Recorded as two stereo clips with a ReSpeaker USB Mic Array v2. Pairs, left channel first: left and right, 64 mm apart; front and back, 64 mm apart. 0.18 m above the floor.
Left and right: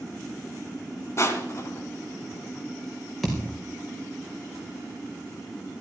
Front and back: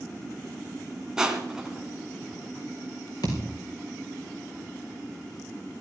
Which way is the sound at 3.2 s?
Straight ahead.